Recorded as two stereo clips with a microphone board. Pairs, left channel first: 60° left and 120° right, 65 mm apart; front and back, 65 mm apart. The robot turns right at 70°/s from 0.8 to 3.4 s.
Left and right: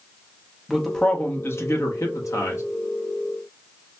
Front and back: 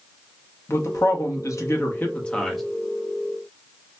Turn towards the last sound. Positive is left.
turn(degrees=150)